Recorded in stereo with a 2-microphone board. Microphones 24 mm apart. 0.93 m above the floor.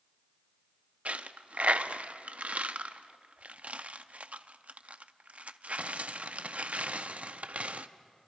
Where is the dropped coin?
70° right (ahead or behind), 0.5 m.